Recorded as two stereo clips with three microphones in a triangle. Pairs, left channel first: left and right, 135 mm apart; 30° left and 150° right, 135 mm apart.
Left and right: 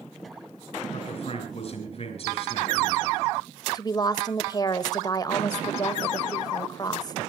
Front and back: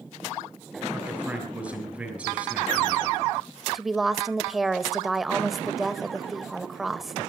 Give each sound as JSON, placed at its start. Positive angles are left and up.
{"t": 0.9, "sound": "a man speaking", "azimuth_deg": 130, "distance_m": 7.0}
{"t": 3.7, "sound": "a woman speaking", "azimuth_deg": 125, "distance_m": 1.4}